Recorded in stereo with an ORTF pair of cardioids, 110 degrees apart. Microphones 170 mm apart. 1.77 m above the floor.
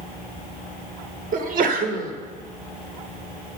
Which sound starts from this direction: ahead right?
A sneeze, at 1.3 s.